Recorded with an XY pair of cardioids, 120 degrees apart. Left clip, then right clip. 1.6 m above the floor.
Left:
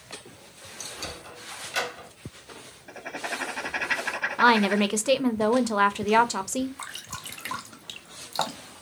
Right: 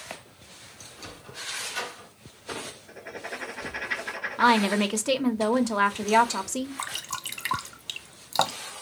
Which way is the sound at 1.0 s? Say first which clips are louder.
Left 2 dB; 60° left.